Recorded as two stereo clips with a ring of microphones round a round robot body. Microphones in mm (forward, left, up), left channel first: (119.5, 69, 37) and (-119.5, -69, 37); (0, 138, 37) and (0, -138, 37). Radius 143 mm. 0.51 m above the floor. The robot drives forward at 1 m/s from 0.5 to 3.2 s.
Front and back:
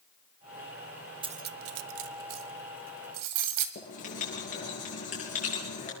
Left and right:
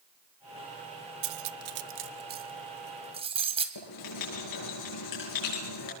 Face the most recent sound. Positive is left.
turn(degrees=95)